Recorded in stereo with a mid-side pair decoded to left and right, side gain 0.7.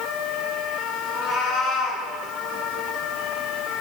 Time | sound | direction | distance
1.1 | a cat meowing | 55° left | 4.5 m